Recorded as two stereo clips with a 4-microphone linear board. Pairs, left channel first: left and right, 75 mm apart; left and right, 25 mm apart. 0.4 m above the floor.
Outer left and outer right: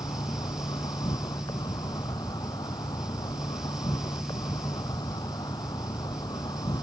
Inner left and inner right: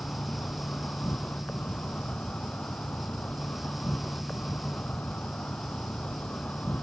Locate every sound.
0.0 s an insect: 65° left (ahead or behind)